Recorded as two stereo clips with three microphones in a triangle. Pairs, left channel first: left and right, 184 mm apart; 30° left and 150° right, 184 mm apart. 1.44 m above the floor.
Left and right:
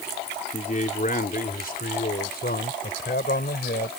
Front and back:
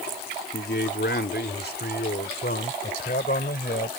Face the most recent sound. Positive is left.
turn(degrees=65)